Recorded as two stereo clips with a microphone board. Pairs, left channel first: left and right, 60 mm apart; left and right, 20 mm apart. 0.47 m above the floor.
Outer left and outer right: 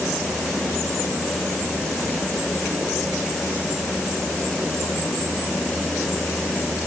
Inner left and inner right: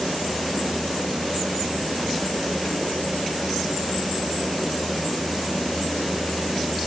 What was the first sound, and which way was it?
Only background noise.